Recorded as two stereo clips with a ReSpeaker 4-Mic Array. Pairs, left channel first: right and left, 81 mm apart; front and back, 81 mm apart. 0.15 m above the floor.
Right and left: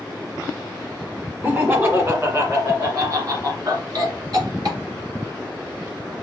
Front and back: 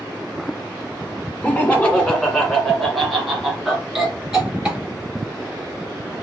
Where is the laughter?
55° left, 1.7 m; by 6.1 s 105° left, 3 m.